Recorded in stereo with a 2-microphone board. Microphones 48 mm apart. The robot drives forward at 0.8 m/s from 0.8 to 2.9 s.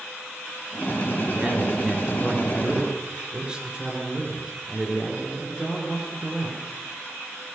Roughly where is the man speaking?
Right.